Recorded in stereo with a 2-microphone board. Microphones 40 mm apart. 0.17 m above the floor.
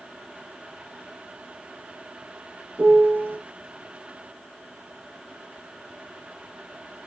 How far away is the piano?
About 1.1 m.